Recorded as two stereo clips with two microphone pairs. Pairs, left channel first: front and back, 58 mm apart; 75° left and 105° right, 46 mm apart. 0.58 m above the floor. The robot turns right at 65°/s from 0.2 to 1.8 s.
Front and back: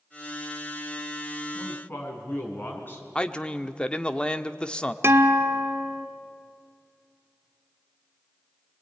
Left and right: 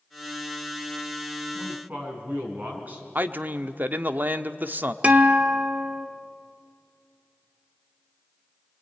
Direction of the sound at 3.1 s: 70° right.